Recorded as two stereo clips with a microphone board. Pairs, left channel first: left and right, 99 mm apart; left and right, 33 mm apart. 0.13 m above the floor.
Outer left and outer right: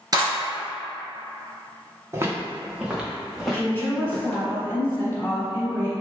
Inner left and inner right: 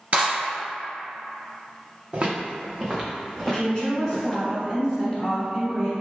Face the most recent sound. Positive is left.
turn(degrees=20)  # may be behind; listen again after turning